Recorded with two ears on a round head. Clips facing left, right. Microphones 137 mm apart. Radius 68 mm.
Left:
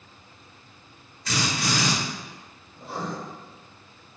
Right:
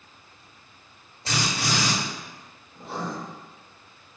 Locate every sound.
1.2 s a drill: 25° right (ahead or behind), 1.5 m
2.8 s writing: 45° right (ahead or behind), 1.7 m